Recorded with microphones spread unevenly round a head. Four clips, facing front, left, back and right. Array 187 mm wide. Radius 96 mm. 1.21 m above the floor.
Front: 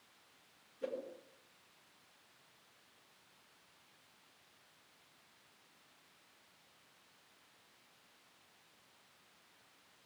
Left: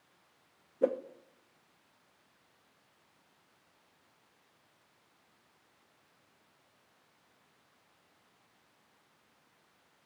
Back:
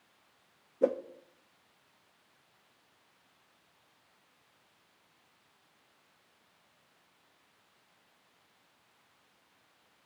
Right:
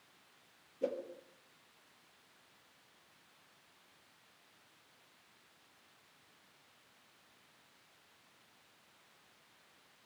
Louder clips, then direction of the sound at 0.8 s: Left 8 dB, back 13 dB; 150° left.